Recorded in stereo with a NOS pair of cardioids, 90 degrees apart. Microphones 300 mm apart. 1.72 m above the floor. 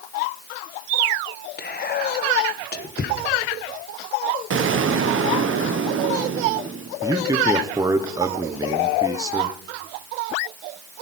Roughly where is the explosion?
Ahead right.